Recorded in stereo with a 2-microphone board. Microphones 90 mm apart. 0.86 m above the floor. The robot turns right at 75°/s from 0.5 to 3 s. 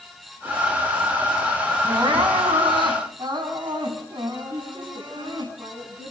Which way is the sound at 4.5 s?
65° right (ahead or behind).